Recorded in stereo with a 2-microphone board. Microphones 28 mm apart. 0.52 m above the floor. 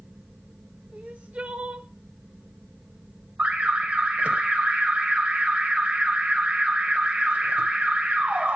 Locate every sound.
0.9 s crying: 55° right (ahead or behind), 1.1 m
3.4 s an alarm: 50° right (ahead or behind), 1.6 m